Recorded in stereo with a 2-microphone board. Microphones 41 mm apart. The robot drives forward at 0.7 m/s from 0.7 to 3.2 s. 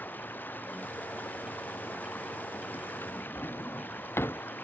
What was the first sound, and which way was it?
Running water, 50° left (ahead or behind).